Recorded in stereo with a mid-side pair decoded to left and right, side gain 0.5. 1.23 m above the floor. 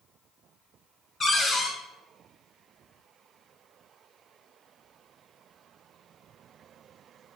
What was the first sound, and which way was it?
A cupboard door, 30° left.